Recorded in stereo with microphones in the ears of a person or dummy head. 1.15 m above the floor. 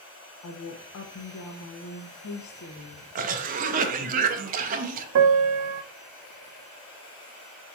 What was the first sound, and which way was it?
A woman speaking, 65° left (ahead or behind).